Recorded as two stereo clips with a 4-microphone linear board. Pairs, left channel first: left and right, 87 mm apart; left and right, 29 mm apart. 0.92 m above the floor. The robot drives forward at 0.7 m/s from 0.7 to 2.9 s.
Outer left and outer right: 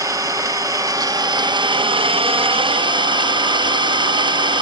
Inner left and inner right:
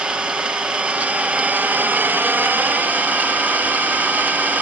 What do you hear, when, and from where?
0.0 s an engine running: 35° right (ahead or behind), 1.4 m; by 4.6 s 60° right (ahead or behind), 1.0 m